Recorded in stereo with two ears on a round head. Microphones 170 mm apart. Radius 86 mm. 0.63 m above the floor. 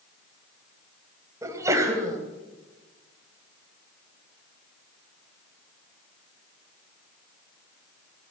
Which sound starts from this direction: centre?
A sneeze, at 1.4 s.